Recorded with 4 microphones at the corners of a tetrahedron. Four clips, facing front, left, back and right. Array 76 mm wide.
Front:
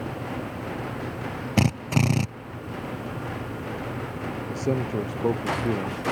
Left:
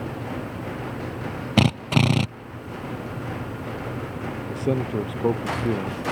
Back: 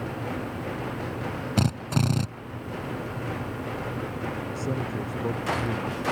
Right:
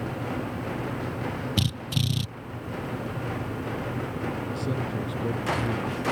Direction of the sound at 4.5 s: 60° left.